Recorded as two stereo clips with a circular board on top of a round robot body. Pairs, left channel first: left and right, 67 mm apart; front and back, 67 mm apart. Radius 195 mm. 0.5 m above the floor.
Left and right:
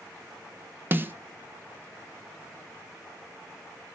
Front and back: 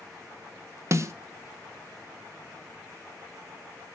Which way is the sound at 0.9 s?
145° right.